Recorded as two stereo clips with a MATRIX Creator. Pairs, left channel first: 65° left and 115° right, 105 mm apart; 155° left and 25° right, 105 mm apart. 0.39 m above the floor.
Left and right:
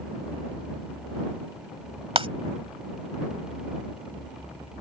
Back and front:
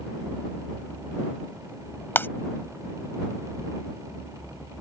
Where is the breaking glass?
135° right.